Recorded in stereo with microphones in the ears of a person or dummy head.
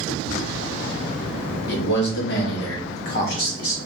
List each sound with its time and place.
1.7 s a man speaking: 60° left (ahead or behind), 1.3 m; by 3.8 s 45° left (ahead or behind), 1.1 m